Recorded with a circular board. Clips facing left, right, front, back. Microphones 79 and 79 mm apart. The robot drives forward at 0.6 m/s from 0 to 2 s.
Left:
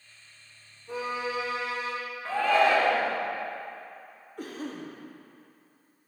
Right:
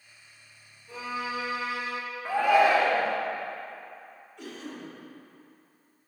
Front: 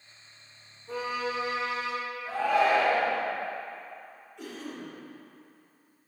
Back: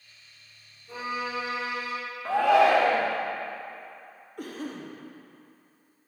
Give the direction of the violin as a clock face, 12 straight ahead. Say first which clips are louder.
Left 2 dB, front 1 dB; 11 o'clock.